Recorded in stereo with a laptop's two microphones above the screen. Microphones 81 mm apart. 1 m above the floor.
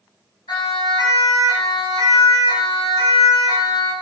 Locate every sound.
0.5 s a siren: 65° left (ahead or behind), 8 m; by 3.9 s 75° left (ahead or behind), 6.5 m